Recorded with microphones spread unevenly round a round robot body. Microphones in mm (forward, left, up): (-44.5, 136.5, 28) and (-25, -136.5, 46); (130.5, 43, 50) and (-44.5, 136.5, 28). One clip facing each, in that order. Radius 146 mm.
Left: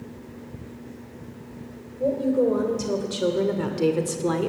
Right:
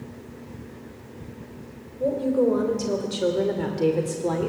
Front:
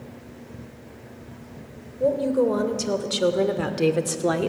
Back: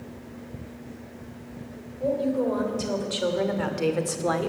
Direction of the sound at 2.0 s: Straight ahead.